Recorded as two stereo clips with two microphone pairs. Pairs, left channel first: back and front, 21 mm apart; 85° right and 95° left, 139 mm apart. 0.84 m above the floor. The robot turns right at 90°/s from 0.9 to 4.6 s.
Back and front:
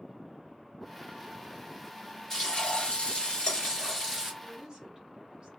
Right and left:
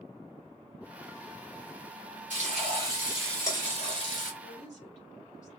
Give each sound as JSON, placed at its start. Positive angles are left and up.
{"t": 2.3, "sound": "frying", "azimuth_deg": 105, "distance_m": 3.0}
{"t": 4.4, "sound": "a woman speaking", "azimuth_deg": -75, "distance_m": 3.5}